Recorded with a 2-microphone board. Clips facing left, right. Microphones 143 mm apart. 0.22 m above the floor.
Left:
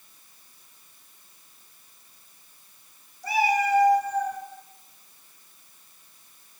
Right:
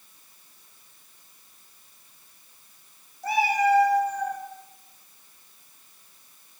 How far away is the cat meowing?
About 2.5 m.